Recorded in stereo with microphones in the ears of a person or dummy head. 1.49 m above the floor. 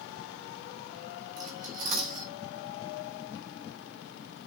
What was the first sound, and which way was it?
Cutlery clinking, 45° right (ahead or behind).